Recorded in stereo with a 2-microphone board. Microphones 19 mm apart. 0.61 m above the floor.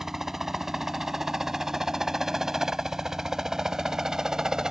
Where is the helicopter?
20° right (ahead or behind); by 4.7 s 35° right (ahead or behind).